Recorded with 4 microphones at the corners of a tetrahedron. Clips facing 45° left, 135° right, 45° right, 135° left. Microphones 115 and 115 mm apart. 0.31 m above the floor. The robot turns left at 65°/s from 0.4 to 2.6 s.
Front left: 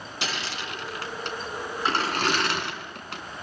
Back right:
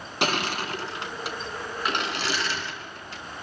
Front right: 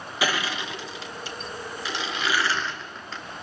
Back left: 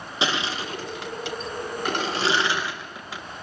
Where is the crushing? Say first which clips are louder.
Back right 7 dB, even; 160° right, 2 m; by 3.2 s 55° left, 2 m.